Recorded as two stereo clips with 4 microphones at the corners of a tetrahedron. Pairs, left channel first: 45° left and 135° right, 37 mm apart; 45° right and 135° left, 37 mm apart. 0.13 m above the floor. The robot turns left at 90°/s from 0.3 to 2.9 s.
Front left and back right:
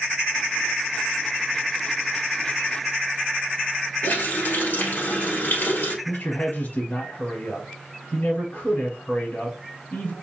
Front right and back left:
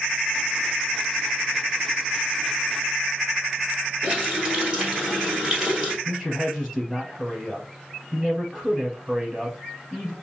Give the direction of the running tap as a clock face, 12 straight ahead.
10 o'clock.